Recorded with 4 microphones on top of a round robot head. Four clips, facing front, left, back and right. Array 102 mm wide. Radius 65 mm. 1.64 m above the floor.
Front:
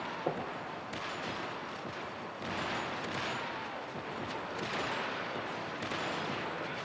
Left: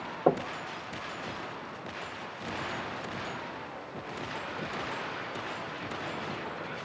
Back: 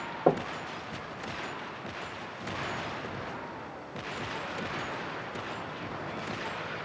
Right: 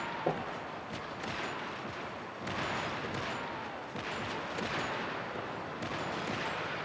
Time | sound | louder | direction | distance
0.3 | knocking | left 9 dB, back 11 dB | 135° left | 1.0 m